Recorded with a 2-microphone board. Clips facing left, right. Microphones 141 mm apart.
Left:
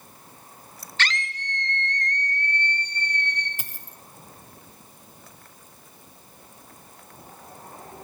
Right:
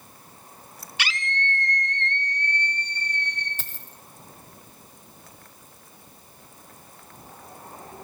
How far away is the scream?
About 0.7 m.